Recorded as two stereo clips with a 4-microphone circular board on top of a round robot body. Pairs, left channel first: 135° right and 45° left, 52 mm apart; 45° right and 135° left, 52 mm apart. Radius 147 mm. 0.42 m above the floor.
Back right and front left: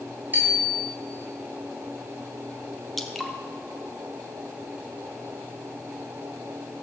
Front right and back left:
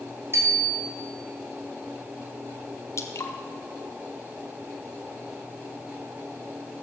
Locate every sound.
0.3 s a bicycle bell: 105° left, 3.5 m
3.0 s dripping: 45° right, 1.6 m